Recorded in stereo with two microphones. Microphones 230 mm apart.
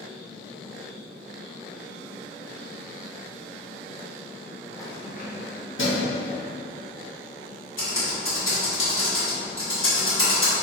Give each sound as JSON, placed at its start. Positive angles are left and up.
{"t": 4.8, "sound": "keys jangling", "side_deg": 15, "distance_m": 0.6}
{"t": 7.8, "sound": "typing on a keyboard", "side_deg": 70, "distance_m": 1.5}